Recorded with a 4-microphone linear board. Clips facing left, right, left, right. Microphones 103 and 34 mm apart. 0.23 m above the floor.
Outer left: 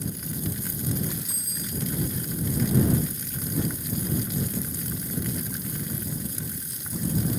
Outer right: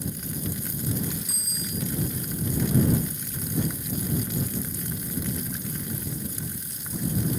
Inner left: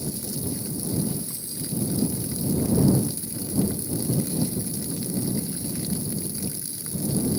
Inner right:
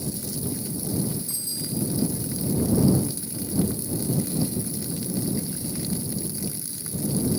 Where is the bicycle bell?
70° right (ahead or behind).